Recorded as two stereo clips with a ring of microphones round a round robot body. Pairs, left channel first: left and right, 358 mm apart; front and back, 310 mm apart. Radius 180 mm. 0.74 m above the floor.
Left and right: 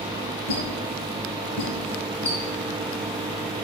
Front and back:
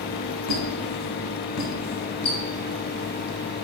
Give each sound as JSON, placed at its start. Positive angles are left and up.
{"t": 0.5, "sound": "a squeak", "azimuth_deg": 35, "distance_m": 1.5}